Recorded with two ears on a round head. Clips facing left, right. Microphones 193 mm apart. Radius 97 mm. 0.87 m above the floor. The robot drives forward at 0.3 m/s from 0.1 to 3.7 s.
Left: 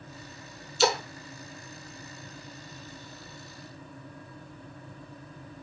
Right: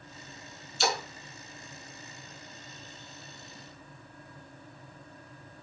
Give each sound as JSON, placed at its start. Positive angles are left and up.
{"t": 0.8, "sound": "a splash", "side_deg": 65, "distance_m": 1.0}